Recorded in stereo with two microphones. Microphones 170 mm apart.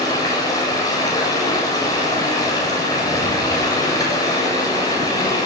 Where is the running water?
20° left (ahead or behind), 8.5 m.